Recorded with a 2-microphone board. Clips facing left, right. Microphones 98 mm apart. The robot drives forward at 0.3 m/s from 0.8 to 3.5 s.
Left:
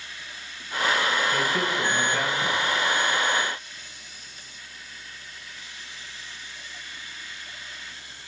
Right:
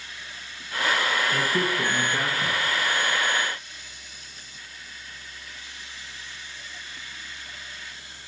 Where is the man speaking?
20° right (ahead or behind), 1.6 m.